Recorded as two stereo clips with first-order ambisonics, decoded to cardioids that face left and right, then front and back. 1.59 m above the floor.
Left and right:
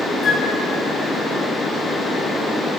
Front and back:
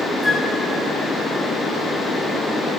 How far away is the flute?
About 0.5 m.